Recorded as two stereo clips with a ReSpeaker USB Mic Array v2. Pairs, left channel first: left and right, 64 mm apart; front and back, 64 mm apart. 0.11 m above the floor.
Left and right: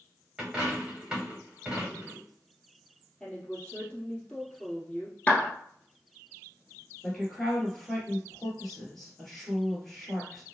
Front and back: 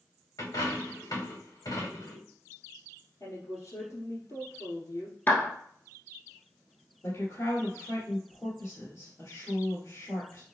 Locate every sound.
0.4 s a dropped coin: 10° right, 2.5 m
3.2 s a woman speaking: 10° left, 2.5 m
5.3 s a clap: 35° left, 1.0 m
7.0 s a woman speaking: straight ahead, 2 m